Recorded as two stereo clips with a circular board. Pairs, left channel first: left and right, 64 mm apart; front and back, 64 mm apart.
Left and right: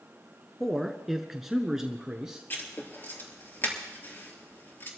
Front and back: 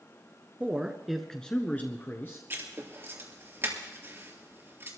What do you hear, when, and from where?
0.6 s a man speaking: 175° left, 1.2 m; by 2.4 s 15° right, 1.5 m
2.5 s writing: 135° left, 3 m